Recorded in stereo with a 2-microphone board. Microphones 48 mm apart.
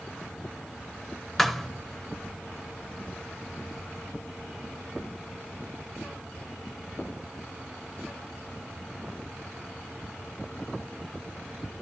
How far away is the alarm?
I don't hear an alarm.